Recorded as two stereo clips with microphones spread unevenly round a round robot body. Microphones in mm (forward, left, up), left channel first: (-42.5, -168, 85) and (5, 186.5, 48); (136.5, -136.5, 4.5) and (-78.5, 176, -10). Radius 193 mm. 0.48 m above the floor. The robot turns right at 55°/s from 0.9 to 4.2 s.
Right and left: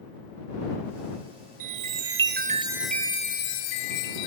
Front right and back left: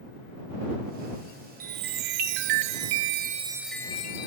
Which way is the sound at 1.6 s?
100° left.